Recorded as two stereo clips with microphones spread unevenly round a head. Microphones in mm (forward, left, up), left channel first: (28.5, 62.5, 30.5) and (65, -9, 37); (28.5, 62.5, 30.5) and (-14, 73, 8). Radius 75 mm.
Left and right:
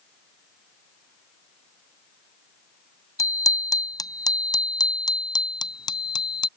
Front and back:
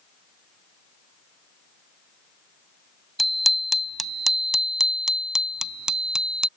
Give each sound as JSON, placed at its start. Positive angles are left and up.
{"t": 3.2, "sound": "a bicycle bell", "azimuth_deg": 70}